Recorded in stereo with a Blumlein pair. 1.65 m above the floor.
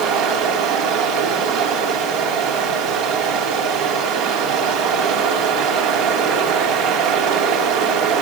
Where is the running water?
45° right, 6.5 m.